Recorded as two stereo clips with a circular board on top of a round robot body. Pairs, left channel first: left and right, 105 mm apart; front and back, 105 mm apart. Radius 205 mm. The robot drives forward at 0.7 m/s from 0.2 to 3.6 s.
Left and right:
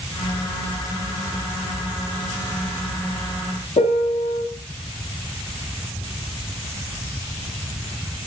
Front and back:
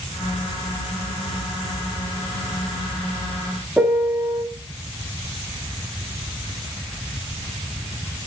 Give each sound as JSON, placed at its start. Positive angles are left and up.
{"t": 3.8, "sound": "a piano", "azimuth_deg": 100, "distance_m": 1.7}